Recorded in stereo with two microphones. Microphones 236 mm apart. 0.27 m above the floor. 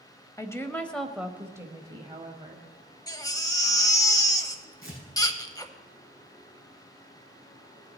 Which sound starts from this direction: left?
Tearing paper, at 4.8 s.